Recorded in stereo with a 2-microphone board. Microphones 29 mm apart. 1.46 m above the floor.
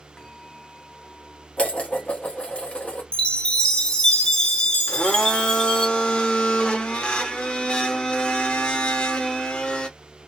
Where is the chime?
30° left (ahead or behind), 0.9 m.